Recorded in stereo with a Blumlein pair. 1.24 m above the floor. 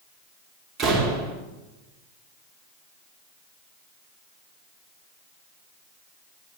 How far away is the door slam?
About 1.8 m.